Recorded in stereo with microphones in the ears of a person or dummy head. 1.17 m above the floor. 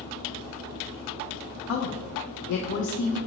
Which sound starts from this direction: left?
A woman speaking, at 1.7 s.